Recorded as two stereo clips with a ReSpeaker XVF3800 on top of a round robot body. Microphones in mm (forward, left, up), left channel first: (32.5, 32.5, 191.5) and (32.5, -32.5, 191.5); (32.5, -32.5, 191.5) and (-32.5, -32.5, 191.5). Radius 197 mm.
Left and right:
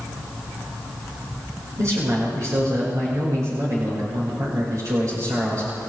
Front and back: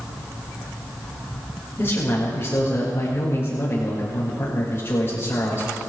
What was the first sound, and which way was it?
A man speaking, 55° right.